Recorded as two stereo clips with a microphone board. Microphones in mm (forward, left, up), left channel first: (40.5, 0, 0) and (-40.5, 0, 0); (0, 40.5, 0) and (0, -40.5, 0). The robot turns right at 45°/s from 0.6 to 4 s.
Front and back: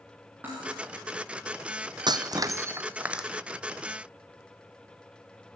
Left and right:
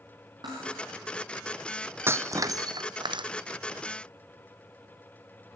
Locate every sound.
0.4 s cutlery clinking: 110° right, 8.5 m; by 0.8 s 105° right, 8.5 m
2.1 s breaking glass: 150° right, 0.5 m; by 3.3 s 95° right, 0.5 m